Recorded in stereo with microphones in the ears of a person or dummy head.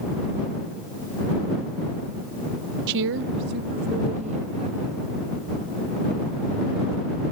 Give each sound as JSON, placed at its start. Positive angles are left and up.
{"t": 2.9, "sound": "a woman speaking", "side_deg": -65}